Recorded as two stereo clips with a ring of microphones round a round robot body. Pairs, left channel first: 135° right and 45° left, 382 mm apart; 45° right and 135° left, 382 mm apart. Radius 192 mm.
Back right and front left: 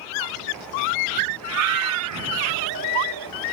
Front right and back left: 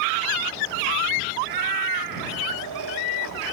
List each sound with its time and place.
1.4 s a cat meowing: 100° left; by 3.4 s 85° left